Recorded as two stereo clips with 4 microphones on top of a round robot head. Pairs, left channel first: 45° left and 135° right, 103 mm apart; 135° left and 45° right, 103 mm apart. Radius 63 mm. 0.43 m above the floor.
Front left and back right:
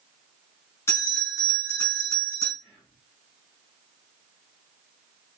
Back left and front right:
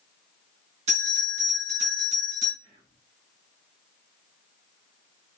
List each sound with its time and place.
0.9 s a bell: 25° right, 5 m
2.6 s whispering: 45° right, 6 m